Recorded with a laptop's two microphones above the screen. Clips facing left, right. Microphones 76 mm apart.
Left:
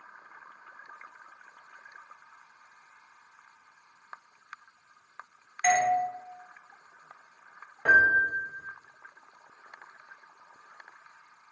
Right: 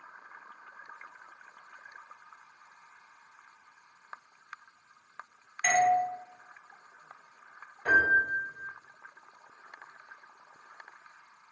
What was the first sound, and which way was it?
A doorbell, 10° left (ahead or behind).